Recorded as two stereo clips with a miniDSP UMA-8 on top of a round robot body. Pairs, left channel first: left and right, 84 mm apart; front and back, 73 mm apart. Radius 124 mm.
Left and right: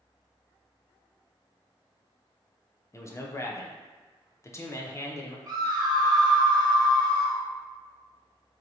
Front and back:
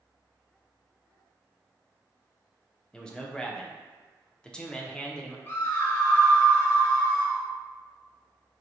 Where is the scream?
55° right, 1.1 m.